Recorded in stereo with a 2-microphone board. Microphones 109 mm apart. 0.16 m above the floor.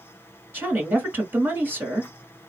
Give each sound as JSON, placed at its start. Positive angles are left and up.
{"t": 0.5, "sound": "a woman speaking", "side_deg": -20, "distance_m": 1.6}